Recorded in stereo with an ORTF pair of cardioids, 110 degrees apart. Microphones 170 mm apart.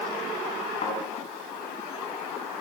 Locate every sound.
0.8 s a thud: 45° left, 6.5 m